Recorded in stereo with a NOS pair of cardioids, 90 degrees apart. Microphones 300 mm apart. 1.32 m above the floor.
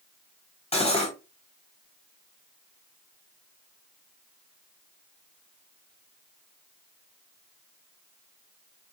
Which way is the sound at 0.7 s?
20° left.